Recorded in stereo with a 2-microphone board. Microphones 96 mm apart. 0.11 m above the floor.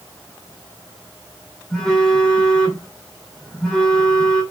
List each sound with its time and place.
1.7 s a phone buzzing: 5° left (ahead or behind), 2.5 m